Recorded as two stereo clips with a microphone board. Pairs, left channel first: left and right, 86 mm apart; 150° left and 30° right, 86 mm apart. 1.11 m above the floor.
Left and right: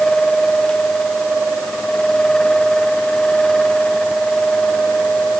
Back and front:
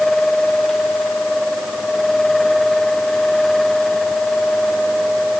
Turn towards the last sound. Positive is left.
No sound to turn to.